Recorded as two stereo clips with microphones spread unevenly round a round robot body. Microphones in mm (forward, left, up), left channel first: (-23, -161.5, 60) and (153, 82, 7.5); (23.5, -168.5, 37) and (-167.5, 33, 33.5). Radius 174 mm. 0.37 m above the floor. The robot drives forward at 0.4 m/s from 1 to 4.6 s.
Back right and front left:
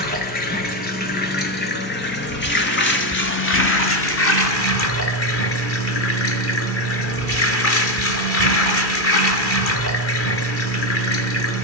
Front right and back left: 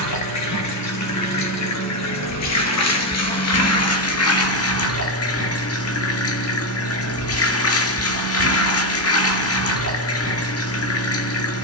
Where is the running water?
65° right, 5 m; by 11.6 s 80° right, 4.5 m.